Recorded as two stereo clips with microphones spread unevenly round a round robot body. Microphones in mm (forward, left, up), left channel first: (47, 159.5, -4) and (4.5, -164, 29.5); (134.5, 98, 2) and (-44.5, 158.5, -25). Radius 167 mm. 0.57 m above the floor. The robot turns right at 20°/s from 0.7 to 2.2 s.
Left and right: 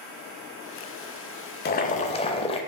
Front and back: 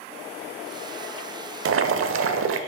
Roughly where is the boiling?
Behind left.